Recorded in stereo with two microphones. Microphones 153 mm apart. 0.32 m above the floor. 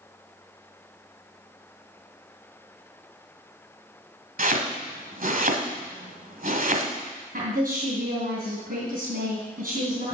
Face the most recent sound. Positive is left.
turn(degrees=-65)  # may be behind; listen again after turning